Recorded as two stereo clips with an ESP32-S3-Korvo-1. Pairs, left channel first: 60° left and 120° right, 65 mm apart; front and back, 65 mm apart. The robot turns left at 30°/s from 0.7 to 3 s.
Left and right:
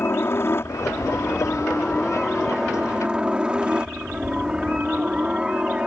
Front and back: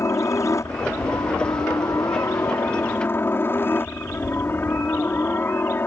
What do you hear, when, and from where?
0.0 s a helicopter: 20° left; by 5.9 s 50° right